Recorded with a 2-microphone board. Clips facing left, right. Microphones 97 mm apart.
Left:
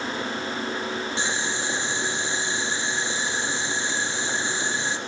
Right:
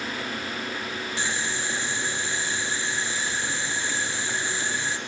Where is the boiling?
20° left (ahead or behind), 1.8 m.